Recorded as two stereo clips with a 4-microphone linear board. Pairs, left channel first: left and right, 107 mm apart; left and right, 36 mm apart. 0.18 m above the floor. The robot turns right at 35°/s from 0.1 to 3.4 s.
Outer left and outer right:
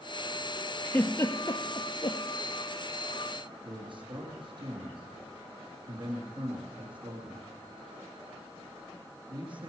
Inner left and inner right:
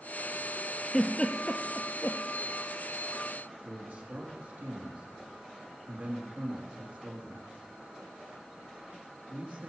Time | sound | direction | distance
0.8 | a giggle | 15° left (ahead or behind) | 1.1 m
3.6 | a man speaking | 50° right (ahead or behind) | 3 m